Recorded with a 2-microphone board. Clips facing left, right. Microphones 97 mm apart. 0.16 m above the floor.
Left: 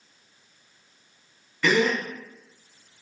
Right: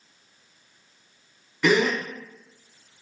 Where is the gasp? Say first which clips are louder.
Right 1 dB; 15° right (ahead or behind), 0.6 m.